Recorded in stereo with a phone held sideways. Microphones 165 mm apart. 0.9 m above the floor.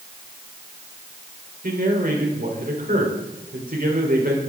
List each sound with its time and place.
1.6 s a man speaking: 60° right (ahead or behind), 3.5 m